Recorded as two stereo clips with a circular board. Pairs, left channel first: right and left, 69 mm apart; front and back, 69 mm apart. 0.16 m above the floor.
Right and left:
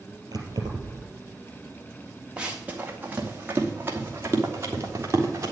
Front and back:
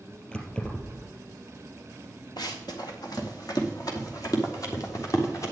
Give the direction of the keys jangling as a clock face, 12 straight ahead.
10 o'clock.